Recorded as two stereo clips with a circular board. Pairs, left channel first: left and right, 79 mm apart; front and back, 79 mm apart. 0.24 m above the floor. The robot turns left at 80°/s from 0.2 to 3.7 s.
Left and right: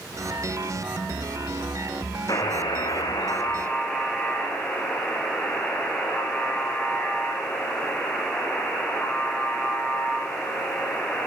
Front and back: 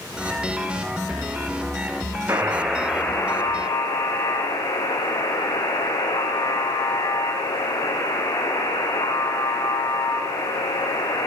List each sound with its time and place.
2.3 s a buzzer: 125° left, 5 m; by 11.3 s 15° left, 5 m